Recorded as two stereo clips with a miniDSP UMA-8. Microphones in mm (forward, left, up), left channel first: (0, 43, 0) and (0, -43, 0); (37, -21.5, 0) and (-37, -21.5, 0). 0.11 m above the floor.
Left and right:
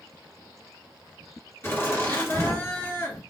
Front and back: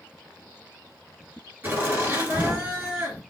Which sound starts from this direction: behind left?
Laughter, at 1.6 s.